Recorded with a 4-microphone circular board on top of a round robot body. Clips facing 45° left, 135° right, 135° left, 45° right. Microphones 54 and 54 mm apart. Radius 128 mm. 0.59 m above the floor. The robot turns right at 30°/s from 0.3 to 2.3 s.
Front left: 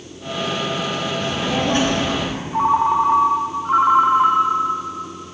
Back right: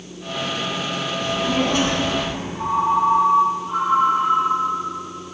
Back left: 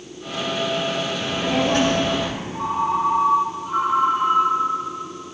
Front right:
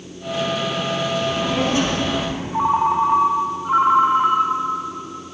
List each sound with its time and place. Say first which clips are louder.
1.2 s a child speaking: back right 2 dB, front right 1 dB; 75° left, 2.5 m; by 2.4 s 110° left, 2.5 m
2.5 s a ringtone: front left 4 dB, front right 5 dB; 5° left, 0.8 m